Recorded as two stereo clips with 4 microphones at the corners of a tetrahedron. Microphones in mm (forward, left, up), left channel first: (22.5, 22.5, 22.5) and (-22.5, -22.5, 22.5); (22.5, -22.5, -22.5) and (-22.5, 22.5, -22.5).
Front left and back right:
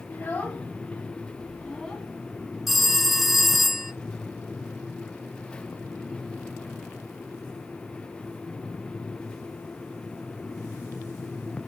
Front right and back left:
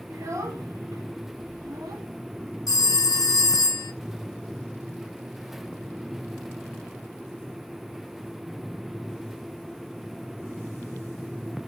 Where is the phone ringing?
45° right, 1.0 m.